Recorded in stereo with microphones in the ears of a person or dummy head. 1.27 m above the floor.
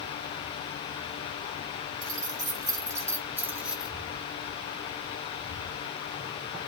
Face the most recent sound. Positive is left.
turn(degrees=0)  # may be behind; listen again after turning